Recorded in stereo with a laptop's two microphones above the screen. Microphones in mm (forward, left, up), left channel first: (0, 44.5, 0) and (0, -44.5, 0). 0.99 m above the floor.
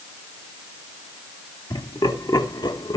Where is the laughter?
45° left (ahead or behind), 2 m; by 3.0 s 50° left (ahead or behind), 1.0 m.